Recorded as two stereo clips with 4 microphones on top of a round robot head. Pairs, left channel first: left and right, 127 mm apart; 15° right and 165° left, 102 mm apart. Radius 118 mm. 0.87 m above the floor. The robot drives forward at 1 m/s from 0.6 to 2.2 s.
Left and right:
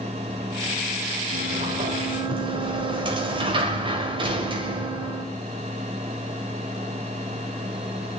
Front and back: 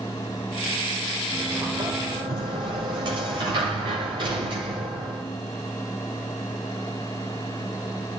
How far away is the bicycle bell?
I don't hear a bicycle bell.